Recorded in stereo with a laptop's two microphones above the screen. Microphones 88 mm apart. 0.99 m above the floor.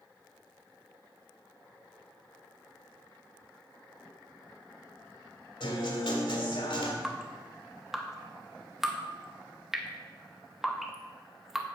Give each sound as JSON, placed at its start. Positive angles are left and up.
{"t": 5.6, "sound": "a guitar", "side_deg": 70, "distance_m": 1.8}
{"t": 7.0, "sound": "dripping", "side_deg": -5, "distance_m": 0.7}